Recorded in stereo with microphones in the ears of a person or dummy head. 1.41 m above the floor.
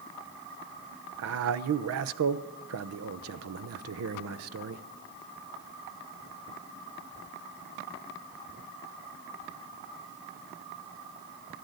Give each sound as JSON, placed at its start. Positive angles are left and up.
{"t": 1.2, "sound": "a man speaking", "side_deg": -80, "distance_m": 0.8}